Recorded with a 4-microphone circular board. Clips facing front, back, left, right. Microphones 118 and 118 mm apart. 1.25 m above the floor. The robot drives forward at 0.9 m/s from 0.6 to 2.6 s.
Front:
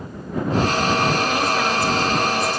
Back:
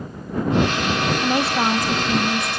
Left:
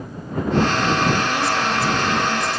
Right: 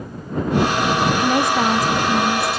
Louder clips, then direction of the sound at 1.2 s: Back 1 dB, right 4 dB; 115° right.